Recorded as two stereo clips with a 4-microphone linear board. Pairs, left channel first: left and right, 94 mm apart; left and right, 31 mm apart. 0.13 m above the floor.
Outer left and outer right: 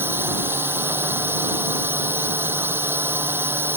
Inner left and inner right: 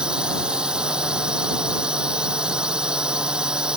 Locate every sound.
0.0 s a drone: 25° right (ahead or behind)